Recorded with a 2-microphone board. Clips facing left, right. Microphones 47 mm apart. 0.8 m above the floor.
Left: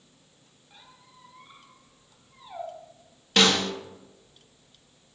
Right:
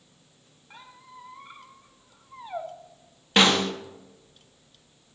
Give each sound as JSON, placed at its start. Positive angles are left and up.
{"t": 0.7, "sound": "a squeak", "side_deg": -75, "distance_m": 1.7}
{"t": 3.4, "sound": "a snare drum", "side_deg": -25, "distance_m": 1.1}